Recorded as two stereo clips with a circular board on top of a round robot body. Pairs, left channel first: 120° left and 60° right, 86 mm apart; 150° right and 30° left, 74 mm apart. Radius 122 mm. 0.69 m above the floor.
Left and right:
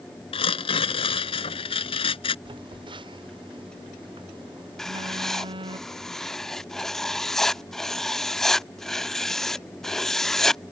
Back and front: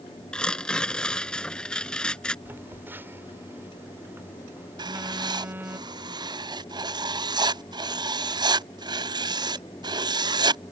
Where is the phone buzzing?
35° right.